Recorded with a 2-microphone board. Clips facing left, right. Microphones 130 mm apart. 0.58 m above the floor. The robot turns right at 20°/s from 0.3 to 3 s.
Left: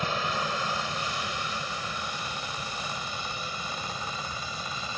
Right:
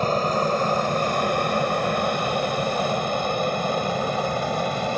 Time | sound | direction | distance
0.0 | an aircraft | 45° right (ahead or behind) | ?